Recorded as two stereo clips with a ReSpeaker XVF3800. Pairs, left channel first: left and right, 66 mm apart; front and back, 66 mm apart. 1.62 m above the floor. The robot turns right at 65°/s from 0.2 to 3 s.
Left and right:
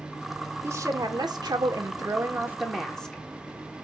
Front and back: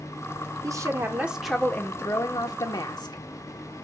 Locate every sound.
0.6 s a woman speaking: 145° right, 1.2 m; by 3.2 s 10° left, 1.2 m